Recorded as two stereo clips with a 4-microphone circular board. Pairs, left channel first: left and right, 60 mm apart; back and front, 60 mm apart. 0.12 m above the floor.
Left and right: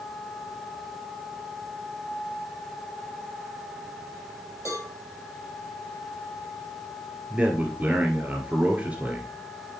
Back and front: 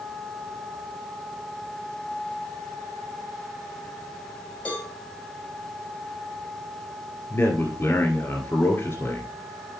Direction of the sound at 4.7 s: 115° left.